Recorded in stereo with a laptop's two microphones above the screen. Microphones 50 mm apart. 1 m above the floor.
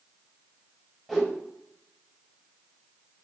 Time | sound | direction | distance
1.1 | a whoosh | 5° left (ahead or behind) | 5 m